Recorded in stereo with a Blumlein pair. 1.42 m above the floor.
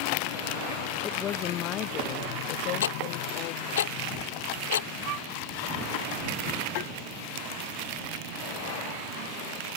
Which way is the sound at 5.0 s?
35° right.